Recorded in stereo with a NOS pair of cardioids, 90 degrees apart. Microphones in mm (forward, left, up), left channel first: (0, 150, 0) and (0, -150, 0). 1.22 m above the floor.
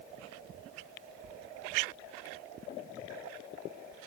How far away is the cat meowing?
No cat meowing in this recording.